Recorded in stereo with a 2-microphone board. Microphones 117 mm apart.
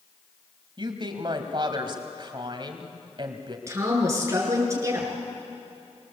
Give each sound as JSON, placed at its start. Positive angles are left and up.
{"t": 0.8, "sound": "a woman speaking", "side_deg": -45, "distance_m": 1.9}
{"t": 3.7, "sound": "a woman speaking", "side_deg": -25, "distance_m": 5.0}